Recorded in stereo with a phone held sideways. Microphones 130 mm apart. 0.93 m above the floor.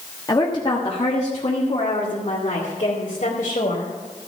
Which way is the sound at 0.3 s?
30° left (ahead or behind).